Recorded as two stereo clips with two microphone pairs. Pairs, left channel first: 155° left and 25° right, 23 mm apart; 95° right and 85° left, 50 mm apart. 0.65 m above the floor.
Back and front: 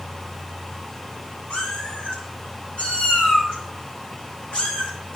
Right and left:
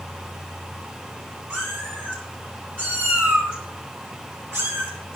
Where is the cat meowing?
130° left, 8 m; by 5.2 s 115° left, 4.5 m.